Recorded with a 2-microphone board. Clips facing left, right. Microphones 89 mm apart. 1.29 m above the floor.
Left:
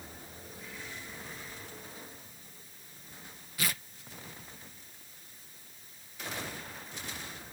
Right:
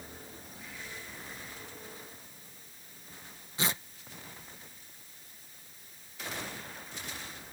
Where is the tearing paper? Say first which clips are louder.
Right 2 dB; 25° right (ahead or behind).